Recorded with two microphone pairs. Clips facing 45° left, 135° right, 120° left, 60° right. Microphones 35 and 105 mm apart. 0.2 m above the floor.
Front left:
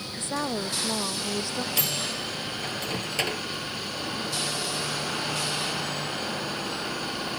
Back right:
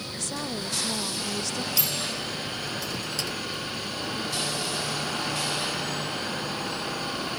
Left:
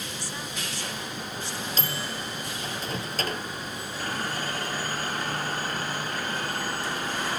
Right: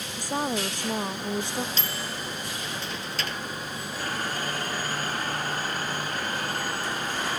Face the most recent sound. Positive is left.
turn(degrees=75)